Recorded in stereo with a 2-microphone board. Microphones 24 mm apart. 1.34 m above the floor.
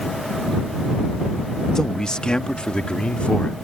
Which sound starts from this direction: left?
A man speaking, at 1.8 s.